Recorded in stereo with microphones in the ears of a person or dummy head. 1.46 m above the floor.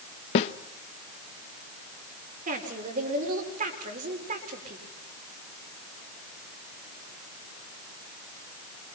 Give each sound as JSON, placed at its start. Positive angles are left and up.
{"t": 0.3, "sound": "a snare drum", "side_deg": 35, "distance_m": 0.8}
{"t": 2.5, "sound": "a woman speaking", "side_deg": -45, "distance_m": 5.5}